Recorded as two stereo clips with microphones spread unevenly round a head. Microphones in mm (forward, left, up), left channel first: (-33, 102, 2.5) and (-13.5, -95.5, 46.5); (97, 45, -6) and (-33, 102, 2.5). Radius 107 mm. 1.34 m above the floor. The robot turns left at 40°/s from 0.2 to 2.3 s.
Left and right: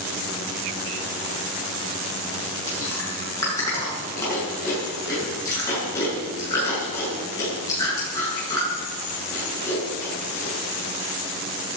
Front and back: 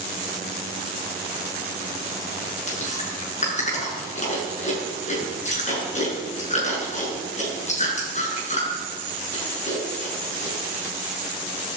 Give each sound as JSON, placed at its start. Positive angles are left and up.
{"t": 2.7, "sound": "chewing", "azimuth_deg": 20, "distance_m": 7.0}